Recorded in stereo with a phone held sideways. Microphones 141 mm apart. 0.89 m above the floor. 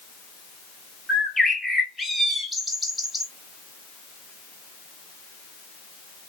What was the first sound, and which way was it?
A bird, centre (ahead or behind).